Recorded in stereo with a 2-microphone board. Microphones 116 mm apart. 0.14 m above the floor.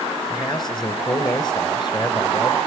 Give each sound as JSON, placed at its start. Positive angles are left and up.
{"t": 0.3, "sound": "a man speaking", "side_deg": 40, "distance_m": 1.7}